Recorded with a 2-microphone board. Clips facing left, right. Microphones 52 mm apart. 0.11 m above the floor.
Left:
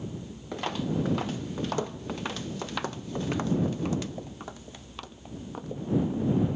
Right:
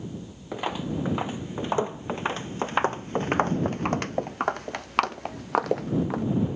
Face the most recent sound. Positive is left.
turn(degrees=-85)